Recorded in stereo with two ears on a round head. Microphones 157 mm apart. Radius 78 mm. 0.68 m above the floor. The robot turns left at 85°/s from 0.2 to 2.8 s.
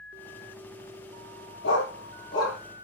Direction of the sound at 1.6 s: 90° left.